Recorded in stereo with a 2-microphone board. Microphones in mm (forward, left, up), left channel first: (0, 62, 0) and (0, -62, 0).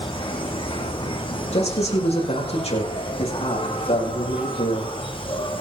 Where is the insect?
45° left (ahead or behind), 2.5 m.